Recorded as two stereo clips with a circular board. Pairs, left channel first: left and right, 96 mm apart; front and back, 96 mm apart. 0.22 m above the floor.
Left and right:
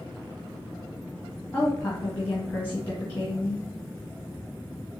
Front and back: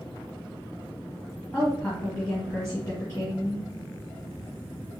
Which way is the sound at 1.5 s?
40° left.